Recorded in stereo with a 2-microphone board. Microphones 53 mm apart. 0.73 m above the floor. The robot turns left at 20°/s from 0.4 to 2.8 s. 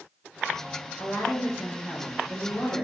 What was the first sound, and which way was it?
A woman speaking, 95° left.